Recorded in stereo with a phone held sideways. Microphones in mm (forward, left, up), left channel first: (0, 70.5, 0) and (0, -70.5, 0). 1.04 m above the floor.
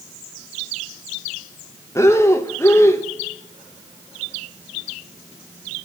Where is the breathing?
20° left (ahead or behind), 1.0 m.